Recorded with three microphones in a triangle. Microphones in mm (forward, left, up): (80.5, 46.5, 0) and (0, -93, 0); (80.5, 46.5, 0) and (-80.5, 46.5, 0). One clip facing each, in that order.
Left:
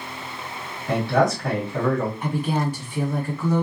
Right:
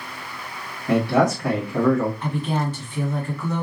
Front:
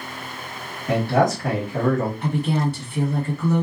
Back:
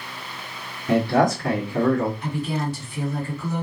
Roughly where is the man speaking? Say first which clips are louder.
Right 2 dB, back 1 dB; ahead right.